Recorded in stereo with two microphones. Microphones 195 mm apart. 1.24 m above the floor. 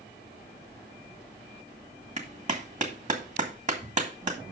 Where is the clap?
40° right (ahead or behind), 1.8 m.